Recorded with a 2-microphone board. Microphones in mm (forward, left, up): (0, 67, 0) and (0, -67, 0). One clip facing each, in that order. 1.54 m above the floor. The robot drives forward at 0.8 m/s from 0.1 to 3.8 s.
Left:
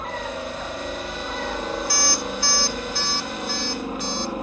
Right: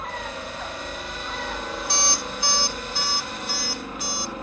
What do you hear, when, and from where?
0.0 s a helicopter: 20° left (ahead or behind)
1.9 s an alarm clock: 25° right (ahead or behind); by 4.3 s 10° right (ahead or behind)